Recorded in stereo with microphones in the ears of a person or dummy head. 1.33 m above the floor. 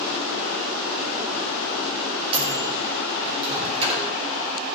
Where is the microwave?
30° right (ahead or behind), 1.5 m.